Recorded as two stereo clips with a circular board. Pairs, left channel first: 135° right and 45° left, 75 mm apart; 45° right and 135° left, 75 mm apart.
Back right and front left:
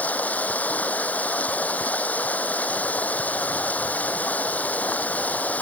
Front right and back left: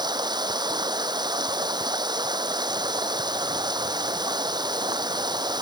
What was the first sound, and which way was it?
Running water, 155° left.